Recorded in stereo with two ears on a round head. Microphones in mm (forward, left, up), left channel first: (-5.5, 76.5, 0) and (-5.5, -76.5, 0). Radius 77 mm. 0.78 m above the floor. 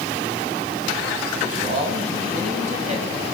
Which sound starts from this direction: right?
A man speaking, at 1.3 s.